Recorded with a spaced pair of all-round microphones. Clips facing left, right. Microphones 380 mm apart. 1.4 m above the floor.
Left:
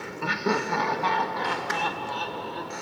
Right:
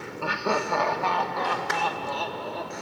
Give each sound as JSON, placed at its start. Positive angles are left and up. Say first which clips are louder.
{"t": 0.2, "sound": "laughter", "louder": "left 1 dB", "side_deg": 30, "distance_m": 1.1}